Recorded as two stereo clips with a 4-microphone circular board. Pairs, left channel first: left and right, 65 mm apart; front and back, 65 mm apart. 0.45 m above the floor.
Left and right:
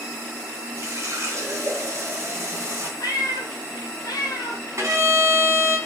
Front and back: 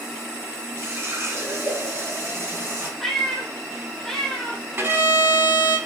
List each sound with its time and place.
0.8 s a running tap: 135° right, 3 m
3.0 s a cat meowing: 85° left, 1.6 m
4.8 s a violin: 125° right, 3.5 m